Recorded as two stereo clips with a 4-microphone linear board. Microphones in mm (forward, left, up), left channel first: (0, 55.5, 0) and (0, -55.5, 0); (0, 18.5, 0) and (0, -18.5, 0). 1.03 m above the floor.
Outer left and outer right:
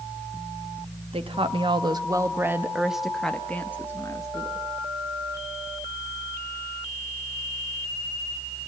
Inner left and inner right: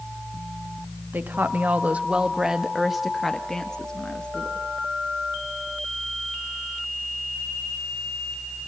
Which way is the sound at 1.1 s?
60° right (ahead or behind).